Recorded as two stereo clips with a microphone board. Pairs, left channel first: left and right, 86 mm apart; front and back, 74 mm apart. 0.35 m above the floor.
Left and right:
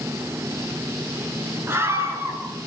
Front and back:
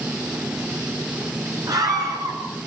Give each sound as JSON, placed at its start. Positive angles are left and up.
{"t": 1.7, "sound": "a scream", "azimuth_deg": -150, "distance_m": 4.5}